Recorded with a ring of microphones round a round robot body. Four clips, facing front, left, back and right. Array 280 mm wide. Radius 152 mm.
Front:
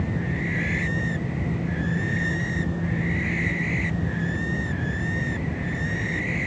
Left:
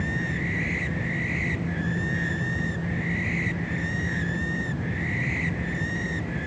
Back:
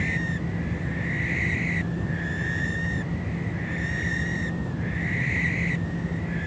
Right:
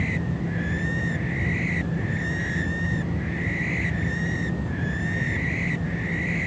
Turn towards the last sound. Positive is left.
No sound to turn to.